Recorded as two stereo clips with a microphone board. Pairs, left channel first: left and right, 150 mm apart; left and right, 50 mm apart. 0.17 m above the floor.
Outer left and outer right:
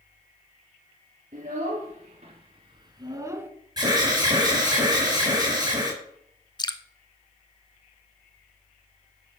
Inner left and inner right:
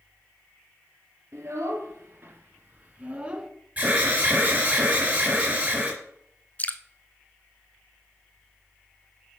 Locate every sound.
1.3 s a child speaking: 50° right (ahead or behind), 2 m; by 3.5 s 15° right (ahead or behind), 1.0 m
3.8 s an alarm: 25° right (ahead or behind), 4 m
6.6 s dripping: 30° left (ahead or behind), 0.6 m